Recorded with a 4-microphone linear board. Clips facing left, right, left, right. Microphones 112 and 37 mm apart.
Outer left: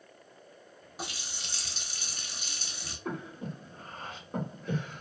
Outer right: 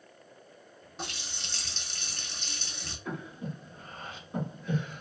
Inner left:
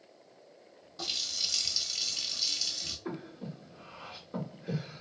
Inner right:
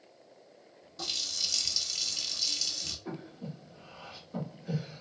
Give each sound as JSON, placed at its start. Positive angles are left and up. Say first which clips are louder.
{"t": 1.0, "sound": "a running tap", "louder": "even, even", "side_deg": 10, "distance_m": 0.6}
{"t": 3.0, "sound": "breathing", "louder": "outer left 1 dB, inner left 1 dB", "side_deg": 50, "distance_m": 1.2}